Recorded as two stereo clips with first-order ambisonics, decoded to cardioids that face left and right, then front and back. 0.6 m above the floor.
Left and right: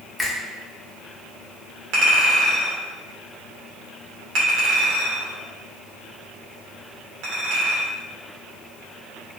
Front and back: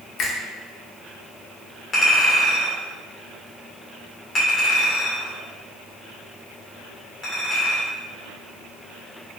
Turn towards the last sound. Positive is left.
turn(degrees=-70)